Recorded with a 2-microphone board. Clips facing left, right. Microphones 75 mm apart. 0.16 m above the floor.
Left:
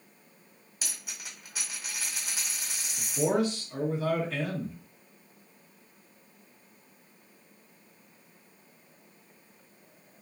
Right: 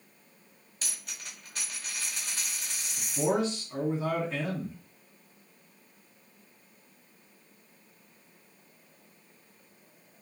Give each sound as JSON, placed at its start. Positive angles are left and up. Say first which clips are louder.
{"t": 0.8, "sound": "a dropped coin", "louder": "left 1 dB", "side_deg": 10, "distance_m": 1.2}
{"t": 3.0, "sound": "a man speaking", "louder": "left 1 dB", "side_deg": -25, "distance_m": 1.3}